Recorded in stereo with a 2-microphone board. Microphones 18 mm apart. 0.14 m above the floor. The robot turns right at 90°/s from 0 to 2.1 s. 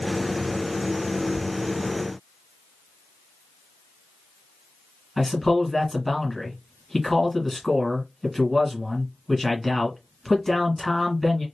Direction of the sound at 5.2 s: 15° left (ahead or behind).